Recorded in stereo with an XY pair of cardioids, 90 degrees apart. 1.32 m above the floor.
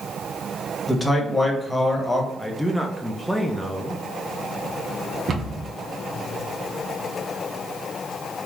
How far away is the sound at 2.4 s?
About 0.5 m.